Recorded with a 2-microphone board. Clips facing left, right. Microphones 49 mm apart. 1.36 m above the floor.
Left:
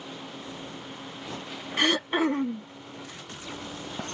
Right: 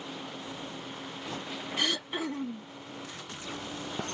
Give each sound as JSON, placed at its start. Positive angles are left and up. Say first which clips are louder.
{"t": 1.8, "sound": "throat clearing", "louder": "left 8 dB", "side_deg": 50}